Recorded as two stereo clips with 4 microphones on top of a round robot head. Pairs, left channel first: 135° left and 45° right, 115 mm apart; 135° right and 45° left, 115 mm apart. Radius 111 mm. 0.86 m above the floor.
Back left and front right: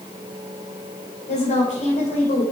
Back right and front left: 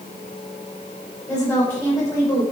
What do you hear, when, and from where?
1.3 s a woman speaking: 150° left, 3 m; by 2.4 s 160° left, 3 m